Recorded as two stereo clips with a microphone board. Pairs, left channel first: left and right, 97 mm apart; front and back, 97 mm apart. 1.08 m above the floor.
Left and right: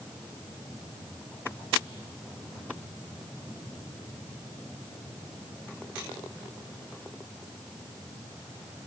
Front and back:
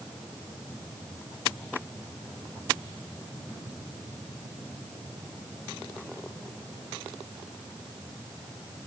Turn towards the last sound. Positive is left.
No sound to turn to.